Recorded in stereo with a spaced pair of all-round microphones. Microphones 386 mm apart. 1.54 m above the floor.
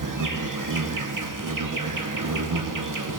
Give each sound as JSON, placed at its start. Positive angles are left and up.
{"t": 0.0, "sound": "an insect", "side_deg": -55, "distance_m": 0.8}